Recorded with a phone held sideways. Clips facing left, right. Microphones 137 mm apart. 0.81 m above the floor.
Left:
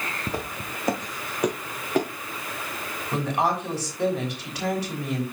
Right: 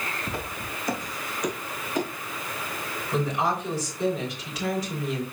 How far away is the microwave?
I don't hear a microwave.